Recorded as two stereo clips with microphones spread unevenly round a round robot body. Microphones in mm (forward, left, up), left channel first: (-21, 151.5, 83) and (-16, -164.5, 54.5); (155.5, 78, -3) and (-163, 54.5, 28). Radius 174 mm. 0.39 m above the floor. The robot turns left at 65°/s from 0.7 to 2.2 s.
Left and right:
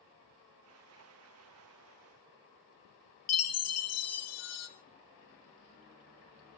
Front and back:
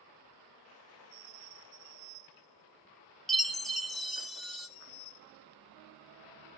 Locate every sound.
3.3 s a chime: 90° left, 1.6 m